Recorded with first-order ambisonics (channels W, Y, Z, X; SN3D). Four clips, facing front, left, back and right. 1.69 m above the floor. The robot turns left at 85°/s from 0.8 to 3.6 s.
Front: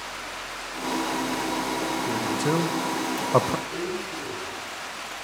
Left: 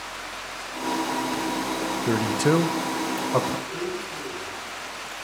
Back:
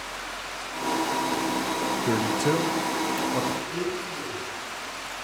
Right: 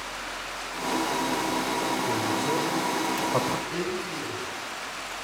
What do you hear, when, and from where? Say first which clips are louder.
2.1 s a man speaking: left 4 dB, back 3 dB; 120° left, 1.6 m; by 3.6 s 5° right, 1.6 m
3.7 s a blender: even, back 1 dB; 100° right, 7.5 m